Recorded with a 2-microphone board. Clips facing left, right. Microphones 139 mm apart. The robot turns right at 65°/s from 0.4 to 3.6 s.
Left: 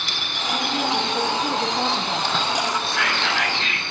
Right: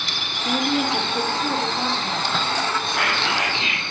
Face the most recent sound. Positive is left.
turn(degrees=-20)